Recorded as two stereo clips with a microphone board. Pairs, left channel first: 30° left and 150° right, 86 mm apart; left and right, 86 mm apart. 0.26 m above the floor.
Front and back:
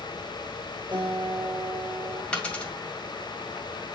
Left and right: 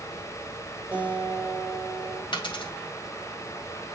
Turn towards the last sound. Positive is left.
turn(degrees=105)